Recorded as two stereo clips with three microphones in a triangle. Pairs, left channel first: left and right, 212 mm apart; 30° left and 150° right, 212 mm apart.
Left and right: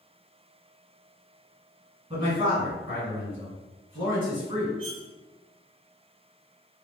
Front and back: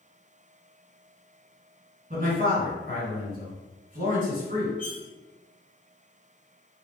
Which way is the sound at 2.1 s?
140° right.